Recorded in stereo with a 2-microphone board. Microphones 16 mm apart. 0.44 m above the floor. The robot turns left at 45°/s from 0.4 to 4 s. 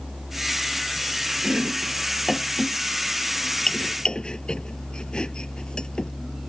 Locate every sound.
1.4 s chopping: 55° right (ahead or behind); by 6.1 s 60° left (ahead or behind)